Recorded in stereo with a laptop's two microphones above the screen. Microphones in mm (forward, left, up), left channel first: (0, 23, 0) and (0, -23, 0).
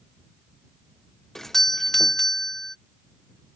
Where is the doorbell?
10° left (ahead or behind).